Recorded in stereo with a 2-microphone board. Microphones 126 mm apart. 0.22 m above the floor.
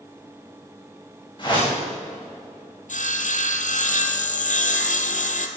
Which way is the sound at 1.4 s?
35° left (ahead or behind).